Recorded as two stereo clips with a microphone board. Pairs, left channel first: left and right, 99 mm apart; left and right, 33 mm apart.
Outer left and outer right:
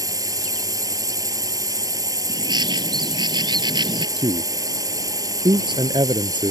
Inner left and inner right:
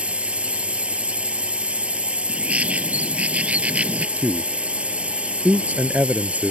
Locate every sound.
0.0 s a drone: 35° right (ahead or behind)
2.3 s a bird: 45° right (ahead or behind)
4.2 s a man speaking: 50° right (ahead or behind)